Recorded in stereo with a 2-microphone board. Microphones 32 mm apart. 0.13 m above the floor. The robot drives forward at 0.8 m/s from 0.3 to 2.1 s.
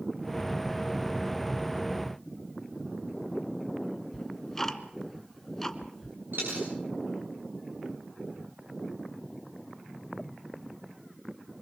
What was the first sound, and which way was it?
Ticking, 10° left (ahead or behind).